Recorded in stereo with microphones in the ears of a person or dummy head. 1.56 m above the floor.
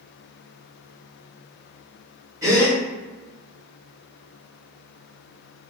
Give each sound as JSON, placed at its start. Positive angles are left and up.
{"t": 2.4, "sound": "a gasp", "side_deg": -25, "distance_m": 1.9}